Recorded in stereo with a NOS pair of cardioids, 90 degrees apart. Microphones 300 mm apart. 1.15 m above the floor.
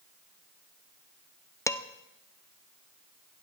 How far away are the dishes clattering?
About 0.6 m.